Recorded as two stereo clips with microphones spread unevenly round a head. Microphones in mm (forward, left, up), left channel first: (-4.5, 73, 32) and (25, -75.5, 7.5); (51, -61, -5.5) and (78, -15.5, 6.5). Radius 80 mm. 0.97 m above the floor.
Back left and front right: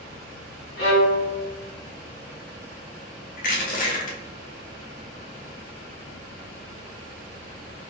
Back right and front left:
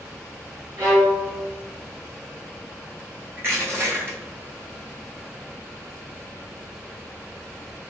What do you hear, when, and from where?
0.8 s a violin: 100° left, 1.0 m
3.4 s crushing: 90° left, 0.6 m